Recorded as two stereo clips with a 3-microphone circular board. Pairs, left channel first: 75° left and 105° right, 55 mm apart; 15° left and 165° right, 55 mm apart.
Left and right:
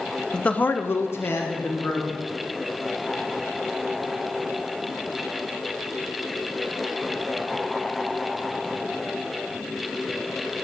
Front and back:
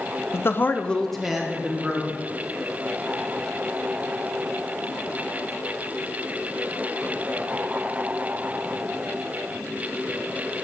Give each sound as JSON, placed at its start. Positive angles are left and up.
{"t": 0.3, "sound": "a man speaking", "azimuth_deg": 5, "distance_m": 0.5}